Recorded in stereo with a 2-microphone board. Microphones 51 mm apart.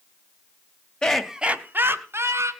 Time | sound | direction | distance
1.0 | laughter | 20° left (ahead or behind) | 0.9 m